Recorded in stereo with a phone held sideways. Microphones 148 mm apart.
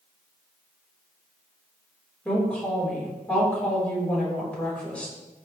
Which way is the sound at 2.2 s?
10° left (ahead or behind).